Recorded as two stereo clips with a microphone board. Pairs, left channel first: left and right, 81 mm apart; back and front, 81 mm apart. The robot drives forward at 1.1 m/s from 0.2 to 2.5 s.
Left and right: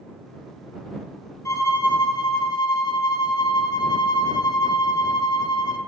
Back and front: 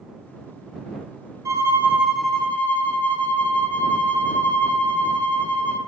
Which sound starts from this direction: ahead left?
A violin, at 1.4 s.